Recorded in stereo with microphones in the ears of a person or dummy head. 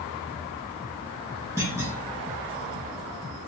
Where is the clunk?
15° right (ahead or behind), 1.3 m.